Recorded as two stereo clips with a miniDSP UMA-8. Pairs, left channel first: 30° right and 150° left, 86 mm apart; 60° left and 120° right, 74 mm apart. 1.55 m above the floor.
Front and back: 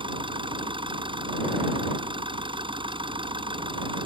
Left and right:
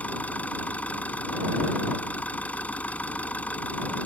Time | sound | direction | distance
0.0 | an engine running | 130° left | ?